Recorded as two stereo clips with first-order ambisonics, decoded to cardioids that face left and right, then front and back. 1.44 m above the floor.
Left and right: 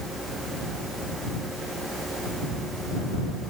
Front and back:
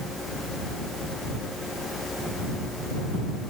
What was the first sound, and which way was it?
Only background noise.